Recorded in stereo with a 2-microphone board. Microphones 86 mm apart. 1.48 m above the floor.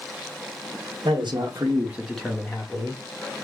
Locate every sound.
1.1 s a man speaking: 80° right, 1.2 m; by 3.0 s 35° left (ahead or behind), 1.7 m